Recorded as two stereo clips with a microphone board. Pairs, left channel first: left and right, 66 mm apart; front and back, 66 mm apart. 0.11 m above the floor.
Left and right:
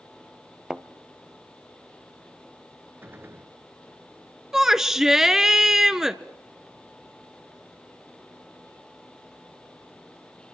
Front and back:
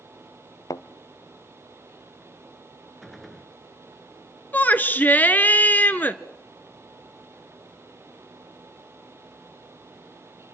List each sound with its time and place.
0.7 s a thud: 10° right, 0.8 m
3.0 s a gunshot: 80° right, 1.6 m
4.5 s a shout: 15° right, 1.4 m